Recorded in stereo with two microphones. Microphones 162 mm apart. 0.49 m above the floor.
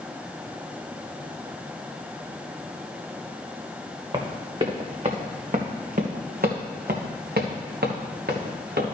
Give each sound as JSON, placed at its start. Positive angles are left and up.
{"t": 4.1, "sound": "running footsteps", "side_deg": -30, "distance_m": 1.9}